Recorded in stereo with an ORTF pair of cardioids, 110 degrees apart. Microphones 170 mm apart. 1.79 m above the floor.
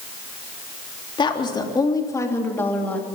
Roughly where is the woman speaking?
Ahead left.